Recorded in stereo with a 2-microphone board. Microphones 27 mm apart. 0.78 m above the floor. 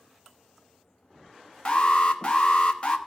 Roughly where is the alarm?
Left.